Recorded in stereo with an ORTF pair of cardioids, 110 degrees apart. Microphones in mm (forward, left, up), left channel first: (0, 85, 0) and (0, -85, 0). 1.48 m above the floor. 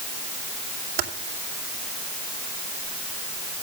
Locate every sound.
1.0 s typing on a keyboard: 65° right, 2.5 m